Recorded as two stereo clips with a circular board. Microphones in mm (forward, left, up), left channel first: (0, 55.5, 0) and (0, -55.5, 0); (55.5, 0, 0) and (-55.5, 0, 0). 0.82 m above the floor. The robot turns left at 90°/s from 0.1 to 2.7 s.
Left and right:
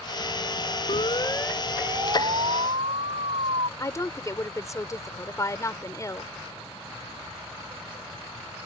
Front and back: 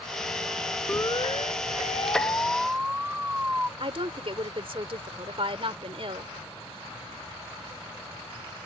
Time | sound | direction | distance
0.9 | a siren | 70° left | ?
3.8 | a woman speaking | 150° left | ?